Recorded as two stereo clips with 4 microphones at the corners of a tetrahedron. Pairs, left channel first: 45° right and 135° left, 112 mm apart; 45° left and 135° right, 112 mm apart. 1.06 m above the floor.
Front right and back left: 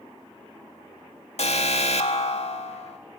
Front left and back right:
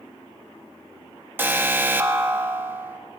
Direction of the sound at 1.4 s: 60° right.